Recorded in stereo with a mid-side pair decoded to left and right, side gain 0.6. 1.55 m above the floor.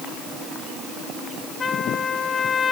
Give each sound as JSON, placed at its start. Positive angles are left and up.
{"t": 1.6, "sound": "a trumpet", "azimuth_deg": 30, "distance_m": 2.0}